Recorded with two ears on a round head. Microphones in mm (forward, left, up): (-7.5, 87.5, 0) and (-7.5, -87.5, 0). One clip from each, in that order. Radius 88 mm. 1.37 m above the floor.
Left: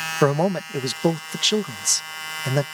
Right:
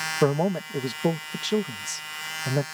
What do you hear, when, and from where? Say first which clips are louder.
0.2 s a man speaking: left 4 dB; 55° left (ahead or behind)